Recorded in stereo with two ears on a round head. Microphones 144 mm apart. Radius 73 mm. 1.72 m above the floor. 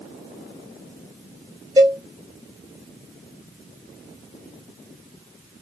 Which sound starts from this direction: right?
A cowbell, at 1.8 s.